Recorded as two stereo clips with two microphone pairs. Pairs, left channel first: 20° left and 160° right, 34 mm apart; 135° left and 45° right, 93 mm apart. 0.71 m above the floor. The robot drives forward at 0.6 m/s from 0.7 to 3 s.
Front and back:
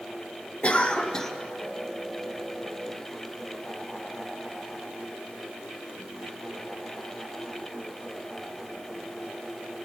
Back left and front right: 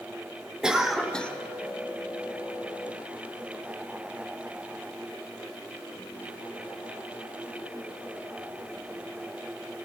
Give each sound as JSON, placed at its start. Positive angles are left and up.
{"t": 0.6, "sound": "a cough", "azimuth_deg": 35, "distance_m": 0.8}